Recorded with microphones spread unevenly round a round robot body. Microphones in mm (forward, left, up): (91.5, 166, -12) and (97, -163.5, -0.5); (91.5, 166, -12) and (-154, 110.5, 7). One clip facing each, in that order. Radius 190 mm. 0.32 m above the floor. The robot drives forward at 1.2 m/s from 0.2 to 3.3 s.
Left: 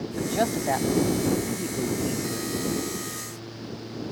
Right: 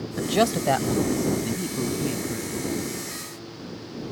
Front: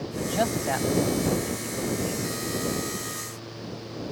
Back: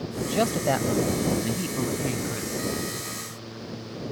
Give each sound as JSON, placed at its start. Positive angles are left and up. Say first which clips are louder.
{"t": 0.2, "sound": "a man speaking", "louder": "right 4 dB, back 2 dB", "azimuth_deg": -90}